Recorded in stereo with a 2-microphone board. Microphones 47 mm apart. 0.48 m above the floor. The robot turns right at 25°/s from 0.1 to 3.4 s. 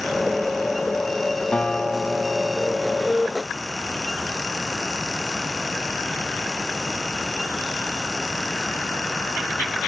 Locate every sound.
1.5 s a guitar: 130° left, 1.0 m; by 3.1 s 170° left, 1.0 m